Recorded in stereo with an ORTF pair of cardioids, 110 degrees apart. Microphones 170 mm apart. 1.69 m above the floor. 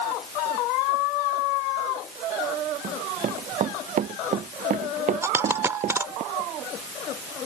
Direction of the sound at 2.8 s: 50° right.